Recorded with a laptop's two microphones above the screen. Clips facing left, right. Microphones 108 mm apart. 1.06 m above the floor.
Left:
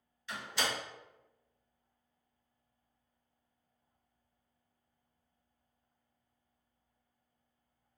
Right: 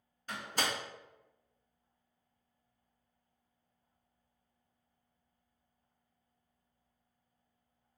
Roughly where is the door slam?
Right.